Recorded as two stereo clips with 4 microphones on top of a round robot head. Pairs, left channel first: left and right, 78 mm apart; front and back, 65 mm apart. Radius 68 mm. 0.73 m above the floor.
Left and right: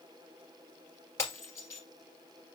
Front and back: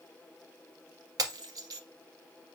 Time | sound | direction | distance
1.2 | breaking glass | 160° left | 1.7 m